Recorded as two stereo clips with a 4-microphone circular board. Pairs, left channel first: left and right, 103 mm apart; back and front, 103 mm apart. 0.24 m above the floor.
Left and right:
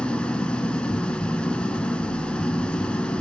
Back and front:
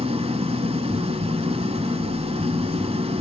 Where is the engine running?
10° left, 0.7 m.